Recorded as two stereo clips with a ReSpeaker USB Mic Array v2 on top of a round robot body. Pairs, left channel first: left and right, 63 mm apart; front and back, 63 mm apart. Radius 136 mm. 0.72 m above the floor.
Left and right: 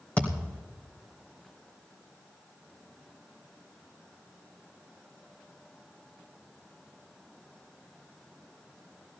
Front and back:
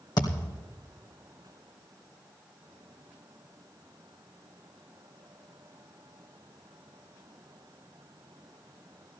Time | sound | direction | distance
0.2 | a thud | 20° left | 2.5 m